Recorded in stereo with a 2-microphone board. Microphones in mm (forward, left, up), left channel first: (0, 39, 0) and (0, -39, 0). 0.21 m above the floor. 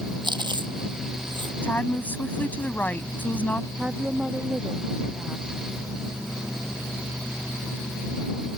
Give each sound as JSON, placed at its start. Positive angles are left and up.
{"t": 0.2, "sound": "chewing", "side_deg": -80}
{"t": 1.6, "sound": "a woman speaking", "side_deg": 25}
{"t": 3.8, "sound": "a woman speaking", "side_deg": -10}